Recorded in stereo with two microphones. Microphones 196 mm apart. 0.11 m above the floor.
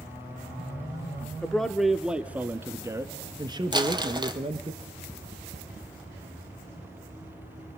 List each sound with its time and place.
1.4 s a man speaking: 5° left (ahead or behind), 1.4 m; by 4.7 s 30° right (ahead or behind), 1.7 m
3.7 s crumpling: 20° right (ahead or behind), 1.9 m